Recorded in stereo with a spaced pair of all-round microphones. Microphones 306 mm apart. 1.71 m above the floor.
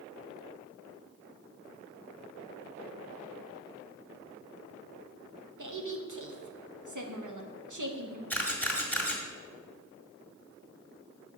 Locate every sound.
5.6 s a woman speaking: 75° right (ahead or behind), 1.2 m
8.3 s a camera shutter: 5° left (ahead or behind), 1.8 m